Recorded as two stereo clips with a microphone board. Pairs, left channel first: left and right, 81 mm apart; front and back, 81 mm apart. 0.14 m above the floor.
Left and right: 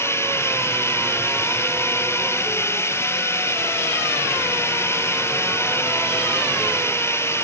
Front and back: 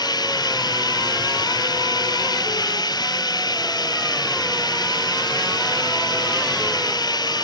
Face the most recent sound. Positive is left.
turn(degrees=35)